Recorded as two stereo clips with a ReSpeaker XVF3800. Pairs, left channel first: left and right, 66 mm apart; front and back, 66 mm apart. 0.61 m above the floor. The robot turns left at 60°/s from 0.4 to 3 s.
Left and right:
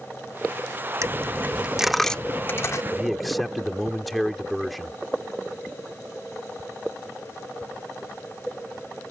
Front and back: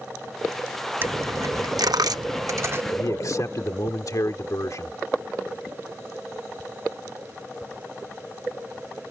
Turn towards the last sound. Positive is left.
turn(degrees=0)